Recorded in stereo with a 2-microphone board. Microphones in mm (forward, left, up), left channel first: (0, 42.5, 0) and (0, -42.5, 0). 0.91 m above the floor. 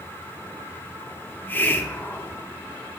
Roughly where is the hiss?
Left.